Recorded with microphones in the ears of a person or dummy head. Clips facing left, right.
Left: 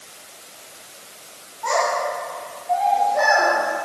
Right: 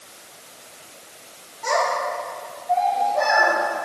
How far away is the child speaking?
About 2 m.